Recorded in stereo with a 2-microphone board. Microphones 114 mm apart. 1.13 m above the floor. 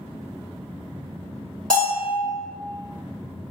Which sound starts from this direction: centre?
A bell, at 1.7 s.